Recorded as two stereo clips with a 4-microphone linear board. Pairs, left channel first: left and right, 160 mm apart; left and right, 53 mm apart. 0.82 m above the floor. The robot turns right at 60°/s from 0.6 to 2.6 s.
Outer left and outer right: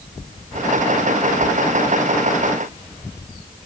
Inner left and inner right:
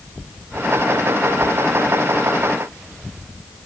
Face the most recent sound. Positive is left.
No sound to turn to.